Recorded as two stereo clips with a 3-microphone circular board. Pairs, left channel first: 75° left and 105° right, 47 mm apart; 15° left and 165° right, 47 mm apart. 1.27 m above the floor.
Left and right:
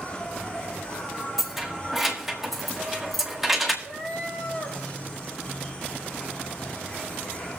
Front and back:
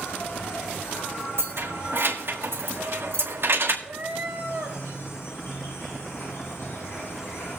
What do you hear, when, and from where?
0.0 s an insect: 10° left, 5 m
1.4 s keys jangling: 170° left, 1.5 m
3.8 s a cat meowing: 130° left, 2.5 m